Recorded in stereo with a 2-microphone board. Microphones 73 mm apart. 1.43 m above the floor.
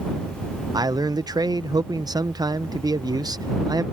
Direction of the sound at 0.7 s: 65° right (ahead or behind).